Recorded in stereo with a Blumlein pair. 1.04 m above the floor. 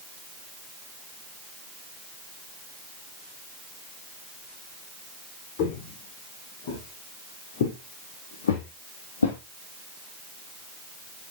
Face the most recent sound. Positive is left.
turn(degrees=75)